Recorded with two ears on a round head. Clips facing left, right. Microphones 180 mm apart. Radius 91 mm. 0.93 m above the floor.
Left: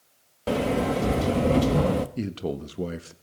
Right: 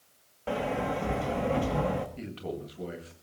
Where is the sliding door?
45° left (ahead or behind), 1.1 m.